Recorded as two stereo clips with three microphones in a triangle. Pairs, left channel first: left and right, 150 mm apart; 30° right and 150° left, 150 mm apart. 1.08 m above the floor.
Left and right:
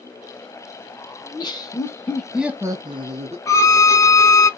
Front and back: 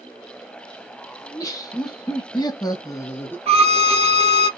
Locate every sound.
1.2 s laughter: 35° left, 1.1 m; by 3.4 s 105° right, 0.7 m
3.5 s a violin: 145° left, 0.5 m